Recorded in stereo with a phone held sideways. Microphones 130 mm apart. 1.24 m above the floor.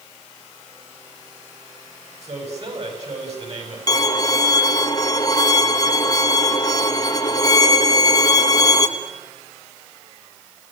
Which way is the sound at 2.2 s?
55° right (ahead or behind).